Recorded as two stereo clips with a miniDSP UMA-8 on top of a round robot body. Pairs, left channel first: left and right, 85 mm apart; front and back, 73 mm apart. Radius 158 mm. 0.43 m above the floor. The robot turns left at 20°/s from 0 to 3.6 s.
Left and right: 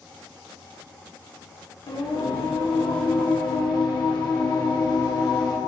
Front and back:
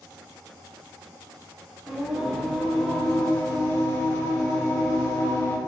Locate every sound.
1.9 s singing: 100° left, 1.1 m; by 5.6 s 65° left, 1.1 m